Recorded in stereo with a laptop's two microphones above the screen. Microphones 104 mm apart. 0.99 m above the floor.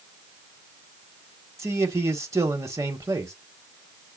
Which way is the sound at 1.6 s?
30° right (ahead or behind).